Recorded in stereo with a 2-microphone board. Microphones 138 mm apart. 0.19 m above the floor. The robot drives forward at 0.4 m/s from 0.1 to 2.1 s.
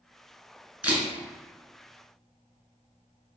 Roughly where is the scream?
No scream in this recording.